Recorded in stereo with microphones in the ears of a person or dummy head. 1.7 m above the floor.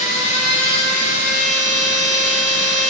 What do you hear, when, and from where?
0.0 s a machine running: 45° left (ahead or behind), 1.4 m